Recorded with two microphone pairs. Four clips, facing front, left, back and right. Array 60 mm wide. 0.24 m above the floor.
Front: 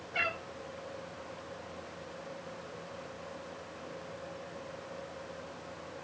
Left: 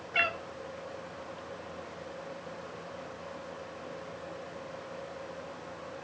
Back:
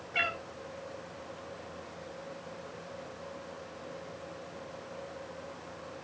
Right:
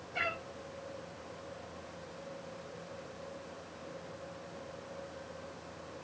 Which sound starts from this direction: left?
A cat meowing, at 0.1 s.